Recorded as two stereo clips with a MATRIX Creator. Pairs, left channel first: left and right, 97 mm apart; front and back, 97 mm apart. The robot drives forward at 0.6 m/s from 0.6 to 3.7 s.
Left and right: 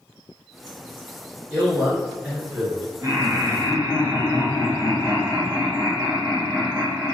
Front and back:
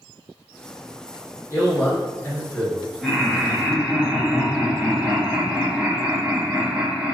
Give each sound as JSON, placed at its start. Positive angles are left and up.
{"t": 1.5, "sound": "a man speaking", "azimuth_deg": -25, "distance_m": 1.8}
{"t": 3.0, "sound": "laughter", "azimuth_deg": -90, "distance_m": 1.9}